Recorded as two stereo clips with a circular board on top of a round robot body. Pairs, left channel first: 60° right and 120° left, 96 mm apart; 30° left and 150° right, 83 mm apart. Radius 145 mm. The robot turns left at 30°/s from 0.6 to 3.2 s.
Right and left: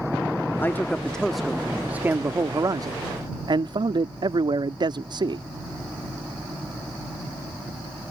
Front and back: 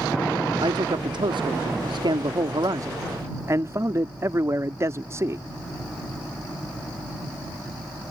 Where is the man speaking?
125° right; by 5.4 s 155° left.